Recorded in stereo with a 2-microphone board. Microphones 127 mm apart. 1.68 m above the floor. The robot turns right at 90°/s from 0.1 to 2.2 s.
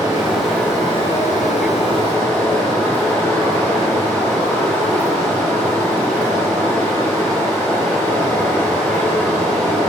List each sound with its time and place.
0.0 s running water: 30° right, 4.5 m; by 9.9 s 155° left, 4.5 m